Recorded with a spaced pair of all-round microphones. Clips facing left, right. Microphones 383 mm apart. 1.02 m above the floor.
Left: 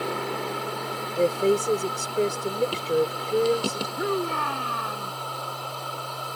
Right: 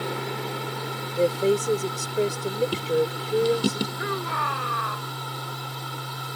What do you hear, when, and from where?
0.0 s a machine running: 30° right (ahead or behind)
1.2 s a woman speaking: centre (ahead or behind)
4.0 s a shout: 45° left (ahead or behind)